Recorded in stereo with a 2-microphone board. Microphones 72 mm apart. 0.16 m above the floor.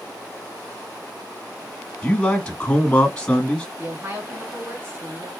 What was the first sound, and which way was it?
A man speaking, 15° left (ahead or behind).